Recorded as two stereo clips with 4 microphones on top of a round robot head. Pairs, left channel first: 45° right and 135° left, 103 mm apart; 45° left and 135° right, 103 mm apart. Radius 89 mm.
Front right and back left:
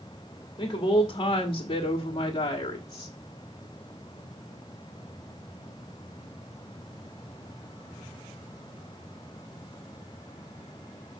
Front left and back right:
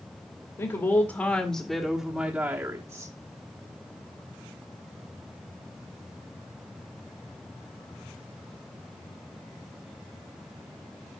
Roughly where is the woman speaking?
Ahead.